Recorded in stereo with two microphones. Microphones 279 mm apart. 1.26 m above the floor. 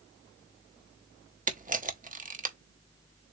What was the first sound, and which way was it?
A camera shutter, 30° right (ahead or behind).